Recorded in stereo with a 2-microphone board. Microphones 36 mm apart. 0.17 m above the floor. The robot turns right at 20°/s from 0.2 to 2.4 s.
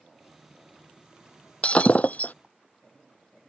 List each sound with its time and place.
1.6 s breaking glass: 35° left (ahead or behind); by 2.3 s 50° left (ahead or behind)